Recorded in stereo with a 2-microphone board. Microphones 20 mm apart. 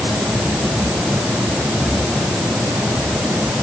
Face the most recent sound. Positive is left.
No sound to turn to.